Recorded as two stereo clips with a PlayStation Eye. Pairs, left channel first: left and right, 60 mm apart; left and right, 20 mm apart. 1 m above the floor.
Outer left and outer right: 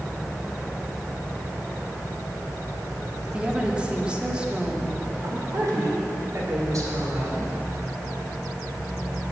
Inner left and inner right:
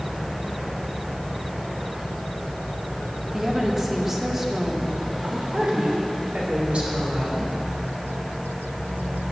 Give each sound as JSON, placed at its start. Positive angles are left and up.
{"t": 3.3, "sound": "a woman speaking", "side_deg": -15, "distance_m": 1.8}
{"t": 5.2, "sound": "a woman speaking", "side_deg": -65, "distance_m": 3.0}